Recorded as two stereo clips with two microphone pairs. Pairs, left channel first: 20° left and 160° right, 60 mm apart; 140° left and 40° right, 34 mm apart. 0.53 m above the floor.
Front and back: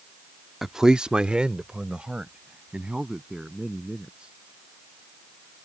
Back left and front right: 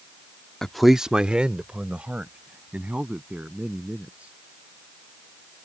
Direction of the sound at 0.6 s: 120° left.